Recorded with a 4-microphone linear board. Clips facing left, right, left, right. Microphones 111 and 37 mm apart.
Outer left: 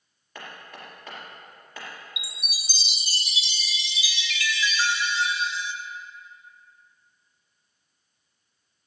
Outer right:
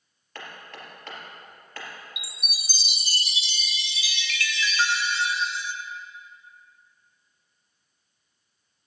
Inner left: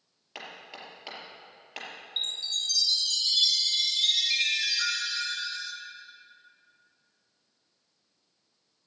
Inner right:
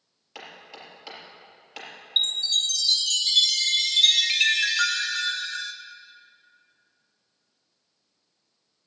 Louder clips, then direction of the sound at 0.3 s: Even, even; 10° left (ahead or behind).